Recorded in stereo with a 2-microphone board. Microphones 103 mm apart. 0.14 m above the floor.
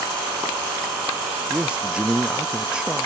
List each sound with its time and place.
1.5 s a man speaking: 10° right (ahead or behind)